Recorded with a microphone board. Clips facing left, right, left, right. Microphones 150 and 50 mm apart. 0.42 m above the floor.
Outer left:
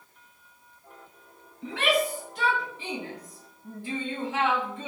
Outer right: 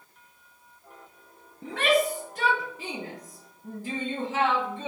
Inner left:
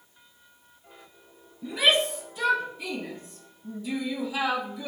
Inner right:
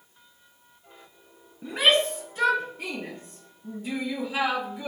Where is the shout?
45° right (ahead or behind), 4 m; by 4.9 s 40° right (ahead or behind), 8.5 m.